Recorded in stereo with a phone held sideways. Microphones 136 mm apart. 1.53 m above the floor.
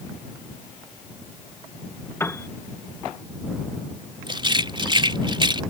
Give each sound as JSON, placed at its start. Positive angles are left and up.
{"t": 2.2, "sound": "a piano", "side_deg": 20}
{"t": 4.3, "sound": "a rattle", "side_deg": -35}